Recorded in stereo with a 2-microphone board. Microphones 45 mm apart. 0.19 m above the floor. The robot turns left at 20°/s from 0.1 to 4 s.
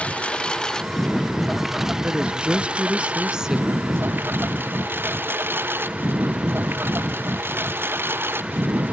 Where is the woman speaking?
130° right; by 4.0 s 170° right.